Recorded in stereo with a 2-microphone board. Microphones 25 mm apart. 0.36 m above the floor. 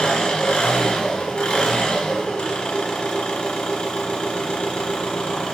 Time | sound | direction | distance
0.0 | an engine running | 60° left (ahead or behind) | 1.0 m